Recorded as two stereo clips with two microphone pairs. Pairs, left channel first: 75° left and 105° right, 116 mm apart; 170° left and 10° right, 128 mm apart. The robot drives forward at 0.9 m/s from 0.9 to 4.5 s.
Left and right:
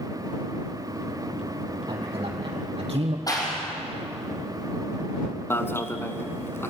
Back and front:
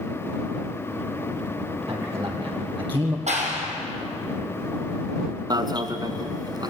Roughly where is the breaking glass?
I don't hear breaking glass.